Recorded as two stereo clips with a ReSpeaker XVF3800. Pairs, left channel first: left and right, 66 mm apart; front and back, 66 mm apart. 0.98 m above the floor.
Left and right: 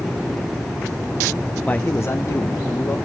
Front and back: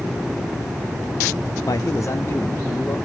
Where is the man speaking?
20° left, 0.6 m; by 3.0 s 60° left, 1.9 m.